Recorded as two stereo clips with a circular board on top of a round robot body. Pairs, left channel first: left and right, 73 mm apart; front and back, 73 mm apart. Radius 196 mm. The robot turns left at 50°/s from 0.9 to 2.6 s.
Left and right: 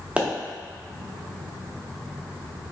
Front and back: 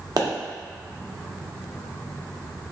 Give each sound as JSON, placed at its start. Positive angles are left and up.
{"t": 0.2, "sound": "a pop", "azimuth_deg": -160, "distance_m": 1.1}